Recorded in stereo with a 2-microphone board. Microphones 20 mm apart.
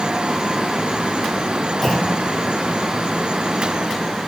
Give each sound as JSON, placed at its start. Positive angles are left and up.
{"t": 1.8, "sound": "a clunk", "side_deg": 10, "distance_m": 4.0}